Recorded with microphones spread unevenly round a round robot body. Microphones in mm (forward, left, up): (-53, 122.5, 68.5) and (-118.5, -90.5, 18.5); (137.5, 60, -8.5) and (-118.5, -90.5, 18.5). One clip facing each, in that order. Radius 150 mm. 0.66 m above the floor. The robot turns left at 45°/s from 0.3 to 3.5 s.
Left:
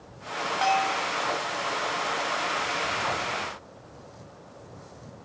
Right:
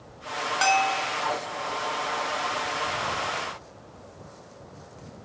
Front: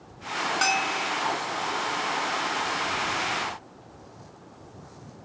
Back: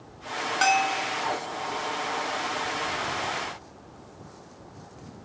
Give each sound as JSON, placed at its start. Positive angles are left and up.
{"t": 0.6, "sound": "a bell", "azimuth_deg": -50}